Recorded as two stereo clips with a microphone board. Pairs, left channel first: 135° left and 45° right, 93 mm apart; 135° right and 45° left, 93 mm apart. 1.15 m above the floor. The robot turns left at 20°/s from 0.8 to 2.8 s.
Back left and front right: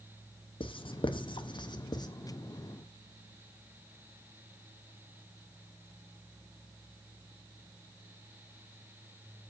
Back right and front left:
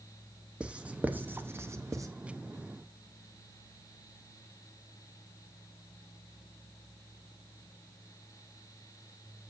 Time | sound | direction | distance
0.6 | writing | 120° left | 0.8 m